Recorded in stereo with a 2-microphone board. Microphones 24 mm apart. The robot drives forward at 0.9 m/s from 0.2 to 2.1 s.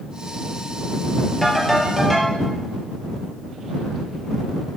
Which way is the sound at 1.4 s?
5° left (ahead or behind).